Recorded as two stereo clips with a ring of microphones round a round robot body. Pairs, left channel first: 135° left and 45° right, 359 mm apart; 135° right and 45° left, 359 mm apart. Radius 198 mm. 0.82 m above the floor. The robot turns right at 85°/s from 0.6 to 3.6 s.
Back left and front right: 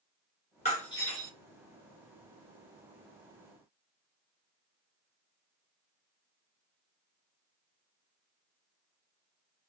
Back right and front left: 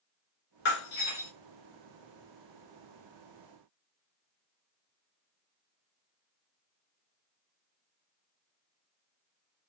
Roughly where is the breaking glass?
Behind right.